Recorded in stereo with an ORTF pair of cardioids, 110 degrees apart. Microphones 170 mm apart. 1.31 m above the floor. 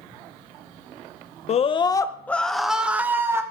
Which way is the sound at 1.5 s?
40° left.